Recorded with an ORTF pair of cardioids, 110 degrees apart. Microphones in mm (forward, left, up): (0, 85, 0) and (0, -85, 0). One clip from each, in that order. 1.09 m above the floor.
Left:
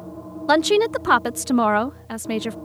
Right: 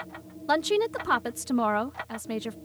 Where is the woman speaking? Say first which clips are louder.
Left 7 dB; 40° left.